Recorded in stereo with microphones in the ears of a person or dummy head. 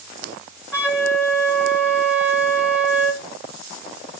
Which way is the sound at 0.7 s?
5° right (ahead or behind).